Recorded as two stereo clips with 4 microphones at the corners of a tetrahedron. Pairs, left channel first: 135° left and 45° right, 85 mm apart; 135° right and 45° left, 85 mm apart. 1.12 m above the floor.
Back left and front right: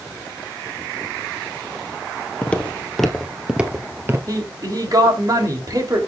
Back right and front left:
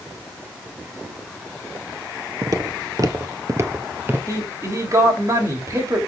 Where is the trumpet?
I don't hear a trumpet.